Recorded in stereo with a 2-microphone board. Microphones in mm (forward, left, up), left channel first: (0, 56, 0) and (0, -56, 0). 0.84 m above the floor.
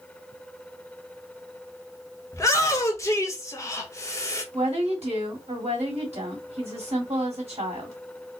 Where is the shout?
30° left (ahead or behind), 1.0 m.